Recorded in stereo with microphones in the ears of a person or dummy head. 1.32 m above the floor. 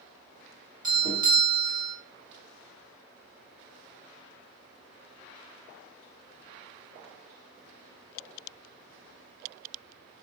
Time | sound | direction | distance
0.8 | a doorbell | 25° right (ahead or behind) | 0.9 m